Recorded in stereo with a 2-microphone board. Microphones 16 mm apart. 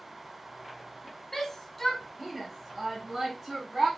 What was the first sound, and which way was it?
A shout, 15° left (ahead or behind).